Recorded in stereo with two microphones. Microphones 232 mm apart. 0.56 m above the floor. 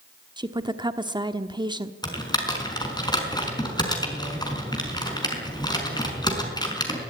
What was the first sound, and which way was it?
A woman speaking, 20° right (ahead or behind).